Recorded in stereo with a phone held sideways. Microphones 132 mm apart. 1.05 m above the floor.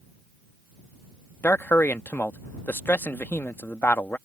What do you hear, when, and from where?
1.4 s a man speaking: 15° left (ahead or behind)